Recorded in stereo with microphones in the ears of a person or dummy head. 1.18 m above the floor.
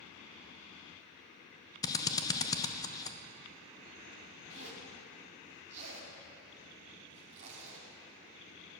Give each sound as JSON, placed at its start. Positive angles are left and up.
{"t": 1.8, "sound": "a drill", "side_deg": 20, "distance_m": 0.7}
{"t": 4.5, "sound": "a zipper", "side_deg": -35, "distance_m": 2.5}